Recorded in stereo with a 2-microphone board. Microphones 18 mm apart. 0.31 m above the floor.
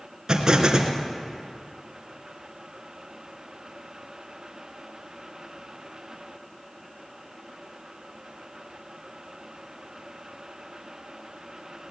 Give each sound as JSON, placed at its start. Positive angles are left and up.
{"t": 0.3, "sound": "an explosion", "side_deg": -35, "distance_m": 2.5}